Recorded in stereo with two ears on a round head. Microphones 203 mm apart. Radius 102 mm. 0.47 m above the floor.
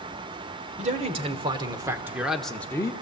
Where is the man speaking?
30° right (ahead or behind), 1.7 m; by 2.9 s 15° left (ahead or behind), 1.0 m.